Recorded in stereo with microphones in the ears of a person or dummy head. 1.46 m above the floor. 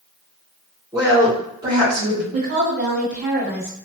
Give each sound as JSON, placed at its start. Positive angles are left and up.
{"t": 0.9, "sound": "a woman speaking", "side_deg": -5, "distance_m": 1.7}
{"t": 2.3, "sound": "a woman speaking", "side_deg": -30, "distance_m": 1.5}